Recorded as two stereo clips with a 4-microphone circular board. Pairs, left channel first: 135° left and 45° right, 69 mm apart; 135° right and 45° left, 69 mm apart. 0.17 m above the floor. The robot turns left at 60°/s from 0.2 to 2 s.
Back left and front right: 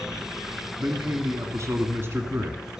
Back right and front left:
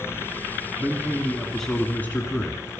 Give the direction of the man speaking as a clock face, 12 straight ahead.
12 o'clock.